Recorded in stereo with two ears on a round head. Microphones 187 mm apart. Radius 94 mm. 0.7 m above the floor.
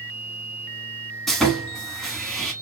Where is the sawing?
Centre (ahead or behind), 1.2 m.